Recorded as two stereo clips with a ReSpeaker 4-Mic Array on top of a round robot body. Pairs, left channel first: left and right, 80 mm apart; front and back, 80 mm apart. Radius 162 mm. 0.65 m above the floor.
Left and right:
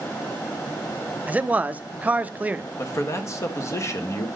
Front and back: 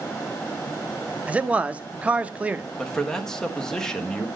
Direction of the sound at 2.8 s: 80° left.